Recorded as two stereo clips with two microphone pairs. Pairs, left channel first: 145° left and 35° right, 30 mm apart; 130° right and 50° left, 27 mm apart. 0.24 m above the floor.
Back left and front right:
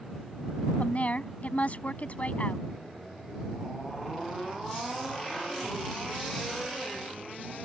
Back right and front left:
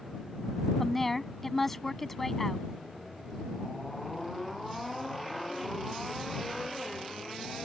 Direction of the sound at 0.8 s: 145° left.